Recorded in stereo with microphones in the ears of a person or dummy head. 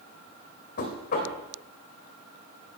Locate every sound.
0.8 s knocking: 55° left (ahead or behind), 3 m